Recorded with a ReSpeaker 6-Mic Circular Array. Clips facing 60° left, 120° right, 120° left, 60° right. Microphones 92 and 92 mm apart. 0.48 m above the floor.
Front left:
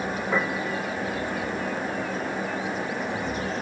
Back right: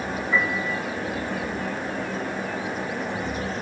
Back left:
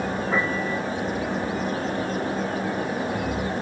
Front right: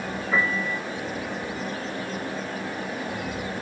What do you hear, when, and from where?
0.3 s a piano: 70° left, 6 m